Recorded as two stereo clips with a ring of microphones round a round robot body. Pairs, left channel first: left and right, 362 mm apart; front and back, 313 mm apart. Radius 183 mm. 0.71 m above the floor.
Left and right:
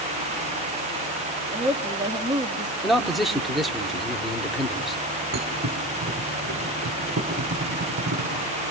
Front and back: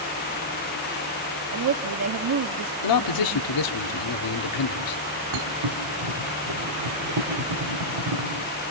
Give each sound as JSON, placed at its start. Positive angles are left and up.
{"t": 1.5, "sound": "a woman speaking", "azimuth_deg": -165, "distance_m": 1.0}
{"t": 2.8, "sound": "a man speaking", "azimuth_deg": 0, "distance_m": 1.4}
{"t": 5.3, "sound": "a thud", "azimuth_deg": -155, "distance_m": 2.5}